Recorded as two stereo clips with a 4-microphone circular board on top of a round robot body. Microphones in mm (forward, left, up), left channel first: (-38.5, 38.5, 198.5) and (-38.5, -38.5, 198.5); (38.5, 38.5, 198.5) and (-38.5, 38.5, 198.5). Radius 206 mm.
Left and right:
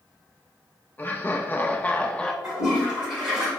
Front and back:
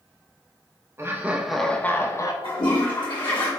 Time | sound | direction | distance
1.0 | laughter | 145° left | 0.8 m
2.4 | a toilet flushing | 5° right | 1.2 m